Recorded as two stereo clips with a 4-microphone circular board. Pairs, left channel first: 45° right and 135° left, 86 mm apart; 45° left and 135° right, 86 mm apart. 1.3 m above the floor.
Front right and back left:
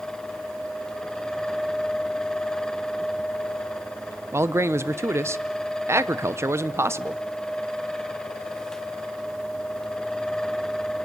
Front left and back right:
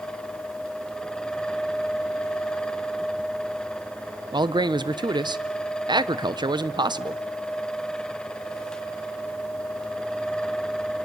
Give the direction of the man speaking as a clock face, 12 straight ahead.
6 o'clock.